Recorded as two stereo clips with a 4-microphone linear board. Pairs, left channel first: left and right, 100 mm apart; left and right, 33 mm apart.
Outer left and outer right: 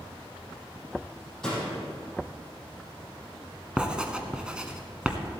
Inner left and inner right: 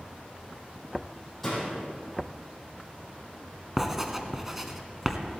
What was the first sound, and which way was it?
A door slam, 5° left (ahead or behind).